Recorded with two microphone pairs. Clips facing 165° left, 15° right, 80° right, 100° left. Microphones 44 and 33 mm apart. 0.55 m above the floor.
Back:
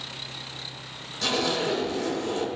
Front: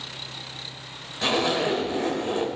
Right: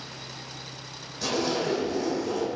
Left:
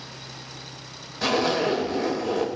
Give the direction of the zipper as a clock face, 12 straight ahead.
10 o'clock.